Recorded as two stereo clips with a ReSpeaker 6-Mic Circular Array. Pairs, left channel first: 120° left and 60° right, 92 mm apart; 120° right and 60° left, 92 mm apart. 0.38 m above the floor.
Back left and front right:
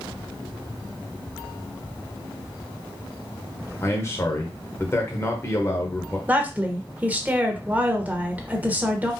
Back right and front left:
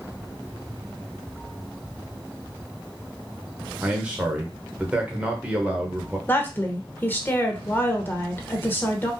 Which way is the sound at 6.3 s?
100° right.